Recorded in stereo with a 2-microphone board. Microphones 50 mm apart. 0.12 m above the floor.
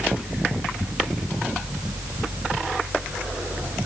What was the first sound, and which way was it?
Only background noise.